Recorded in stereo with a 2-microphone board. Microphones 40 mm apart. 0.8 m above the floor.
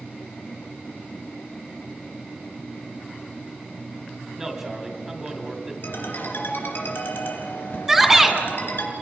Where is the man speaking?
15° right (ahead or behind), 2.5 m.